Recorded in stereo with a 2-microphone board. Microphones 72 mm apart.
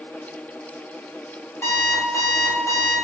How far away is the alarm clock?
About 1.1 m.